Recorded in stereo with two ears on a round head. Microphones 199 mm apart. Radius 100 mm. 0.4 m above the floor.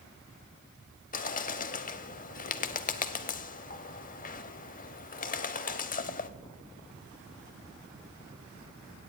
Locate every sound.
1.1 s a bird: 40° left (ahead or behind), 0.7 m